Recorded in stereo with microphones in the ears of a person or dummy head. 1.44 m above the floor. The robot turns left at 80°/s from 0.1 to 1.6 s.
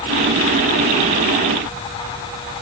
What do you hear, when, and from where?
Only background noise.